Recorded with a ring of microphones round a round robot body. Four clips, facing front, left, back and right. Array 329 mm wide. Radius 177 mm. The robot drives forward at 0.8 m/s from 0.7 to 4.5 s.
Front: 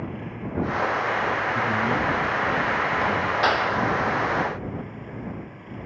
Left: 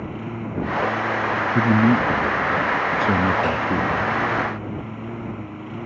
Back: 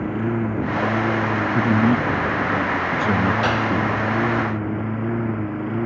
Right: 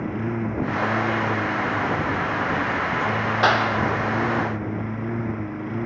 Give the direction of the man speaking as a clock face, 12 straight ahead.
8 o'clock.